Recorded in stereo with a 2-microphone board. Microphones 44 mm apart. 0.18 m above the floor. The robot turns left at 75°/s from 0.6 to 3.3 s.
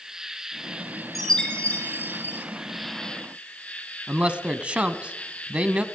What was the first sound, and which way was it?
An insect, 15° right.